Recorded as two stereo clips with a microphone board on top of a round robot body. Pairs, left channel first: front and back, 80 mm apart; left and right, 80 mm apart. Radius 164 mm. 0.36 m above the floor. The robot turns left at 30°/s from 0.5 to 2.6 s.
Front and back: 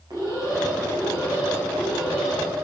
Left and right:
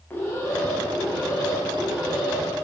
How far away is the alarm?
About 5.5 m.